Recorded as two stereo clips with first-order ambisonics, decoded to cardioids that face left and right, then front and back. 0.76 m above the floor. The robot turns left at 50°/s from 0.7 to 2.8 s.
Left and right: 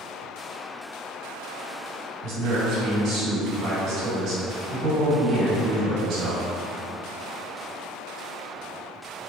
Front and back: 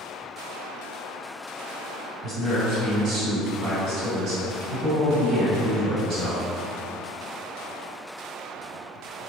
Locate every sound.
2.2 s a man speaking: 105° right, 1.6 m; by 6.4 s 135° right, 1.6 m